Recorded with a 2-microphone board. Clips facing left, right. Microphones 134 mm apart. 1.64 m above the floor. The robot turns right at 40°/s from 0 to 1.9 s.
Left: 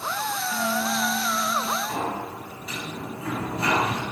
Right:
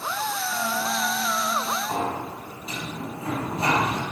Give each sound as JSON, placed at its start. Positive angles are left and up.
{"t": 0.5, "sound": "a guitar", "azimuth_deg": 145, "distance_m": 3.5}
{"t": 1.9, "sound": "a sliding door", "side_deg": -30, "distance_m": 4.5}